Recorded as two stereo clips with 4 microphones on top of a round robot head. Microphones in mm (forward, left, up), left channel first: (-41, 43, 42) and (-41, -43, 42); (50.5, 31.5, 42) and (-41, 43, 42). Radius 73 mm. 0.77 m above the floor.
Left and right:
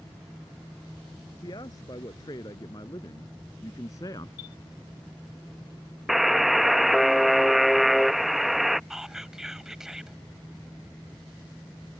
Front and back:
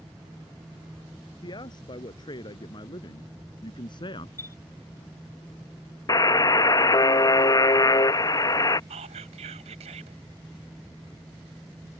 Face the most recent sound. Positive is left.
turn(degrees=-175)